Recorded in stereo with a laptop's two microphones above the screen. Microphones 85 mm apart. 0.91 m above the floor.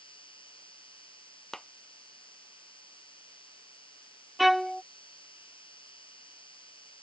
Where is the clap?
5° left (ahead or behind).